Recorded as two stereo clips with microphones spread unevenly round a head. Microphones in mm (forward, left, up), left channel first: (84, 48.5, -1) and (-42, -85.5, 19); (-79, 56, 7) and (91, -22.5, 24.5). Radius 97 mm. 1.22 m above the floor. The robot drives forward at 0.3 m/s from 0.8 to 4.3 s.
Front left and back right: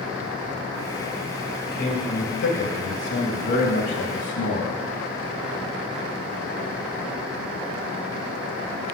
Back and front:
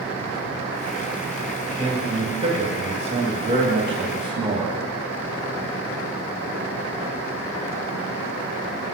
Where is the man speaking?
30° left, 2.5 m; by 4.8 s 40° left, 2 m.